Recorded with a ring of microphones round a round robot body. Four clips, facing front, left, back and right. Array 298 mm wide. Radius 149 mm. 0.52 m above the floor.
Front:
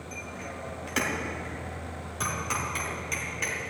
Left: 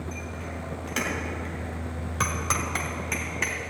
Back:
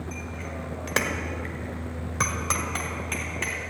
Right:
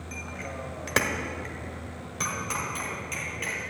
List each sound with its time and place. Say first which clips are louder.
0.1 s a bicycle bell: left 1 dB, back 3 dB; 110° right, 2.5 m; by 3.6 s 115° left, 3 m